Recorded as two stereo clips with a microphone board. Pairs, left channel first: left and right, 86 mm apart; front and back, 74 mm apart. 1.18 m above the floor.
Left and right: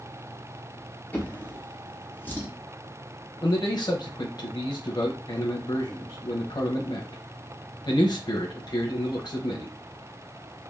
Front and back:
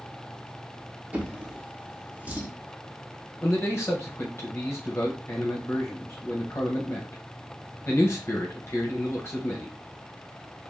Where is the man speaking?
55° left, 0.6 m.